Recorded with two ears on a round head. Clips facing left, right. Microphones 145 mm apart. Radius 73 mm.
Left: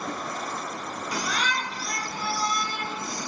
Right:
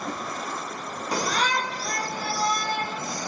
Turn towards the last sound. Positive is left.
turn(degrees=-40)  # may be behind; listen again after turning